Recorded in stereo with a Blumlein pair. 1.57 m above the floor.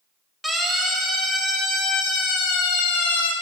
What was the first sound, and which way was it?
A siren, 5° right.